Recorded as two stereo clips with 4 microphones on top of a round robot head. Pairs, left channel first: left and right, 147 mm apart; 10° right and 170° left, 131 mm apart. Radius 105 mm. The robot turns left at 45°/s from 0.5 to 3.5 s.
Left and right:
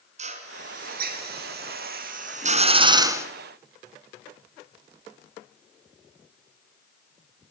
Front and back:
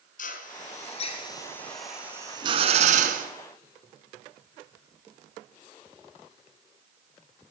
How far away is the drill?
About 3.5 m.